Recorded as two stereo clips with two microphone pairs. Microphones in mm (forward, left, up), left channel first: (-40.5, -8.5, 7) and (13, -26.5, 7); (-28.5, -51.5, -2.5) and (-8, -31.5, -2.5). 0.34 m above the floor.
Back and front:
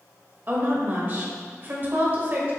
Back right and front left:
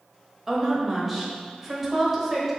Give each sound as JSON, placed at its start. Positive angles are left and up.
{"t": 0.5, "sound": "a woman speaking", "azimuth_deg": -40, "distance_m": 1.0}